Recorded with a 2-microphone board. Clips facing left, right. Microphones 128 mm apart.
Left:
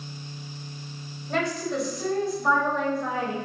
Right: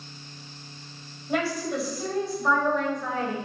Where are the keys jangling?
No keys jangling in this recording.